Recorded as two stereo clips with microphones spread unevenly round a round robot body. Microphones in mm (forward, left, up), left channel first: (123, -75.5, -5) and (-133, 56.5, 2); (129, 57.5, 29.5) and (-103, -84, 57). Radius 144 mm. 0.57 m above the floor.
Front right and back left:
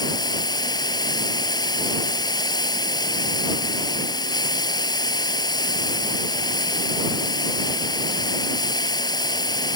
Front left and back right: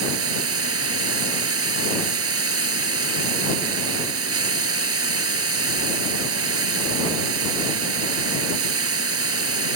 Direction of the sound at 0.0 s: 105° right.